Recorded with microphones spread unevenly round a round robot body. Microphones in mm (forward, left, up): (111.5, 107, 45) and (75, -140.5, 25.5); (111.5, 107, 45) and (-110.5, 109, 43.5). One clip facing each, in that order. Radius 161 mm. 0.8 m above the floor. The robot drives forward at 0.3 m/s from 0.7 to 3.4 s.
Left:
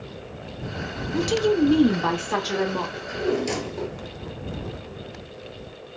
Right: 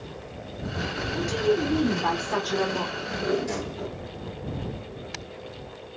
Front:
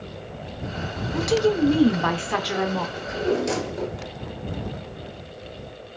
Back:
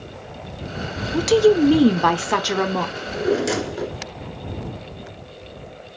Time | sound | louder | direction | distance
1.1 | a woman speaking | left 4 dB, back 6 dB | 125° left | 0.7 m
3.0 | a drawer | left 3 dB, back 3 dB | 110° left | 1.2 m